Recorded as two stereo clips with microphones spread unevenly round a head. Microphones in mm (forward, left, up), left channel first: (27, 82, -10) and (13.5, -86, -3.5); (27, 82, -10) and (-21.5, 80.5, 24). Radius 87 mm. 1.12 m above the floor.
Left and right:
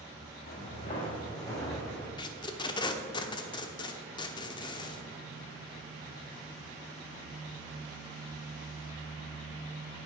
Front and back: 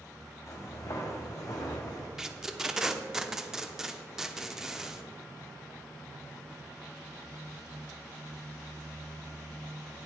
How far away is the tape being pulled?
About 0.9 m.